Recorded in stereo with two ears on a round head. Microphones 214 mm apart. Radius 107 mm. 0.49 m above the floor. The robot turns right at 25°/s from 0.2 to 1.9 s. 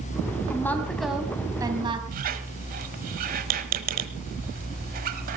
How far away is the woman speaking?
About 3.5 m.